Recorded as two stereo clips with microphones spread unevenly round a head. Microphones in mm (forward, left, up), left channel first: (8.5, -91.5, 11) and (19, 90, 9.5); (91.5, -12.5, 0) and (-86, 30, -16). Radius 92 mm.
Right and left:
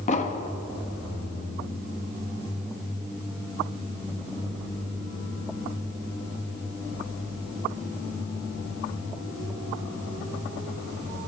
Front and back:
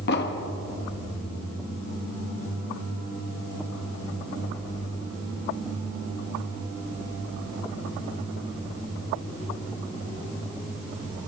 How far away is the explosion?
About 1.0 m.